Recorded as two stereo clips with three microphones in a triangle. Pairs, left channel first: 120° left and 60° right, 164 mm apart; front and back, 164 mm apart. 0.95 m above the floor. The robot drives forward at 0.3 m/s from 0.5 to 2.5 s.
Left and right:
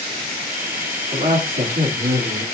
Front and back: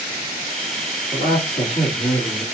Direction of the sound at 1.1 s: 50° right.